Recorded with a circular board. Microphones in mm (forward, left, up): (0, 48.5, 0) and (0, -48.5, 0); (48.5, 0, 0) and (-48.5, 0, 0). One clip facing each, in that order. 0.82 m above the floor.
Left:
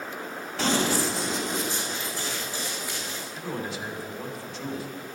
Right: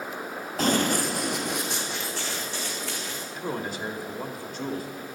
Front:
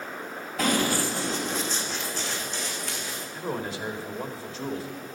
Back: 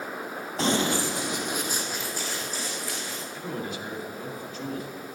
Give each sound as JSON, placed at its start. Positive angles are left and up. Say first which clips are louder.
{"t": 0.6, "sound": "running footsteps", "louder": "right 1 dB, even", "azimuth_deg": -125, "distance_m": 1.4}
{"t": 3.3, "sound": "a man speaking", "louder": "right 2 dB, front 3 dB", "azimuth_deg": -55, "distance_m": 2.0}